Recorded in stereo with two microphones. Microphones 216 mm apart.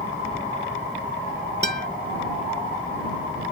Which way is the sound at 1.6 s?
50° right (ahead or behind).